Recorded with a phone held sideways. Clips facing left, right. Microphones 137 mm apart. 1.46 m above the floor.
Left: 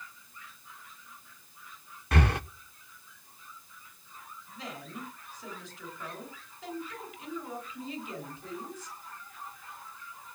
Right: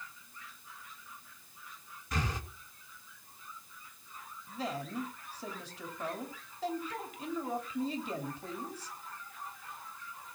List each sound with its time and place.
2.1 s breathing: 65° left (ahead or behind), 0.7 m
4.5 s a woman speaking: 35° right (ahead or behind), 4 m